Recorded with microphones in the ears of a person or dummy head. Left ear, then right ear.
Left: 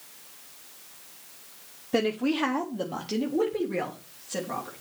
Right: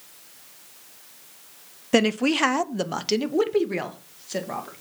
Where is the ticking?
I don't hear ticking.